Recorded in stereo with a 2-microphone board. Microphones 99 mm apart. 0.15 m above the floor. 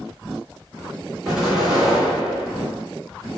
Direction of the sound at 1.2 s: 5° right (ahead or behind).